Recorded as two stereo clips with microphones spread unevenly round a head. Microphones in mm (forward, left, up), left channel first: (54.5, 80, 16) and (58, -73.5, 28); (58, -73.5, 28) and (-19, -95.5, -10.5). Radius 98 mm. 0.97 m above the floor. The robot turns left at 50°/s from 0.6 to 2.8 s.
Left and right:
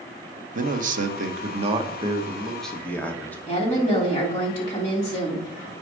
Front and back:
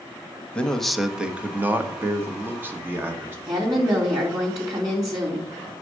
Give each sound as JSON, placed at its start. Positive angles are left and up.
{"t": 0.6, "sound": "a man speaking", "azimuth_deg": -85, "distance_m": 1.1}
{"t": 3.5, "sound": "a woman speaking", "azimuth_deg": 145, "distance_m": 3.0}